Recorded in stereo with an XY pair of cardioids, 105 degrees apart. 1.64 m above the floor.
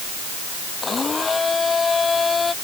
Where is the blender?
30° left.